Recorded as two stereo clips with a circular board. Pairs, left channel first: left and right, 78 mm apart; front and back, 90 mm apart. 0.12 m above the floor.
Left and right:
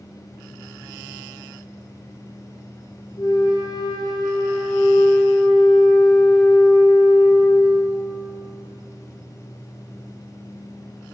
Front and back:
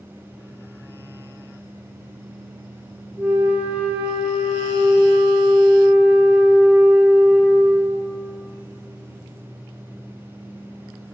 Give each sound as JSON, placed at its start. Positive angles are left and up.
{"t": 3.2, "sound": "a flute", "azimuth_deg": 110, "distance_m": 1.2}